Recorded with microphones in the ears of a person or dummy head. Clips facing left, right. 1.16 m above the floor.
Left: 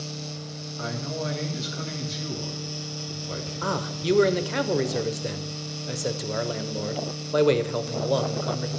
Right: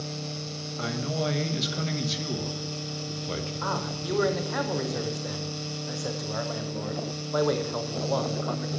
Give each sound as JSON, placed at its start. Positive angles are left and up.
{"t": 0.8, "sound": "a man speaking", "side_deg": -45, "distance_m": 1.3}
{"t": 3.6, "sound": "a man speaking", "side_deg": 30, "distance_m": 0.6}